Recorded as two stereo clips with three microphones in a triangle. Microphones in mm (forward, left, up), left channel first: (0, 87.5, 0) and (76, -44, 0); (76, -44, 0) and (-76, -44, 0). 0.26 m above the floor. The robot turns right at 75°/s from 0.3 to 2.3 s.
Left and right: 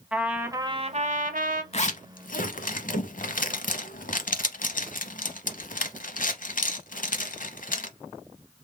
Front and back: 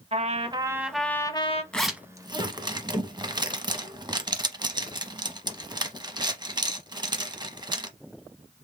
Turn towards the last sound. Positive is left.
turn(degrees=125)